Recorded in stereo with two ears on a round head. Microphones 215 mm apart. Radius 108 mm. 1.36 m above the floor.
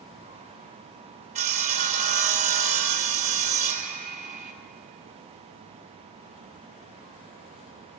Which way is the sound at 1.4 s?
30° right (ahead or behind).